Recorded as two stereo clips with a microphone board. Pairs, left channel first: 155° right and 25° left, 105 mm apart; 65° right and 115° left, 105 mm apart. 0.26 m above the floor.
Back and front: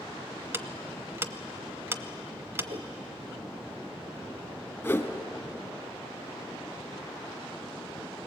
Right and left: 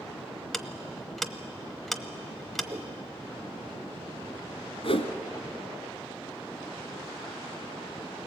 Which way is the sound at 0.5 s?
20° left.